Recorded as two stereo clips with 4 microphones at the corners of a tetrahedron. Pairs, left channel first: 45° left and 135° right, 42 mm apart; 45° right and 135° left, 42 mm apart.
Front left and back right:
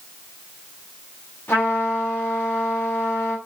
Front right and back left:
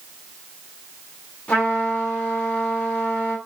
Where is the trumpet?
5° left, 4.5 m.